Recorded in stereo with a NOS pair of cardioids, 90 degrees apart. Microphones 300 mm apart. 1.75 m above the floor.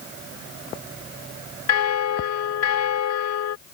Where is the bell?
65° left.